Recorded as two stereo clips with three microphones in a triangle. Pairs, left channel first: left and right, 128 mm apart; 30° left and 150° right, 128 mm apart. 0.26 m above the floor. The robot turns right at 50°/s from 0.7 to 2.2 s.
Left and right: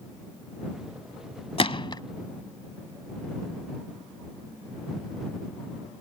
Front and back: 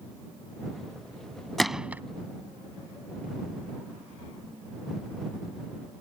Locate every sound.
1.6 s a gunshot: 120° left; by 2.0 s 140° left